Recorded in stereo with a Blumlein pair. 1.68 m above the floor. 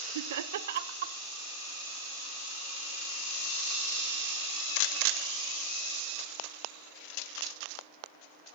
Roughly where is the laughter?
Ahead right.